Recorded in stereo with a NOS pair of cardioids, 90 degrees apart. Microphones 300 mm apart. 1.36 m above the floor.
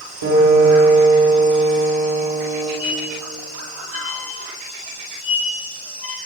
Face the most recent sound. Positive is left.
turn(degrees=50)